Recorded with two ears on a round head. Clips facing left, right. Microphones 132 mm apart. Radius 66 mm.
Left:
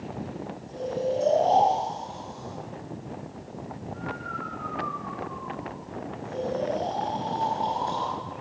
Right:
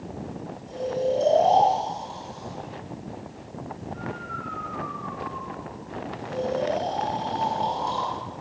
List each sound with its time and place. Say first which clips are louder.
0.7 s snoring: right 3 dB; 35° right (ahead or behind), 4 m